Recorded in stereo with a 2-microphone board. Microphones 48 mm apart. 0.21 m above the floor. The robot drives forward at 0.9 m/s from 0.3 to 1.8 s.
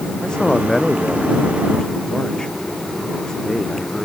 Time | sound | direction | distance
0.2 | a man speaking | 15° left (ahead or behind) | ?